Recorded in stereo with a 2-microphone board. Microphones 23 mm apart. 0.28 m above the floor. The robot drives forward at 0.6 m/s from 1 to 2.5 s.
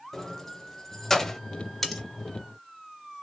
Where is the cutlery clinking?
5° left (ahead or behind), 1.2 m; by 2.0 s 10° left (ahead or behind), 1.1 m.